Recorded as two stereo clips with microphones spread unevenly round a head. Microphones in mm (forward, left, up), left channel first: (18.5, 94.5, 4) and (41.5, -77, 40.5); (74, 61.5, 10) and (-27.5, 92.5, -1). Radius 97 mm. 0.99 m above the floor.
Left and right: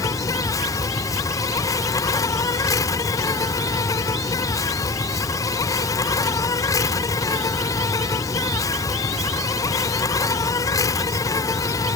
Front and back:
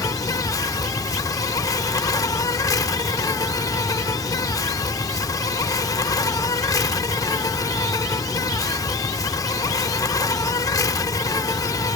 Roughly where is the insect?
Ahead.